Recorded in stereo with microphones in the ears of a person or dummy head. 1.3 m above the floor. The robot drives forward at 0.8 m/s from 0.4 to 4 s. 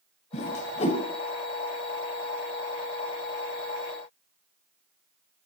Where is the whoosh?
35° left (ahead or behind), 1.3 m; by 1.0 s 30° left (ahead or behind), 1.6 m.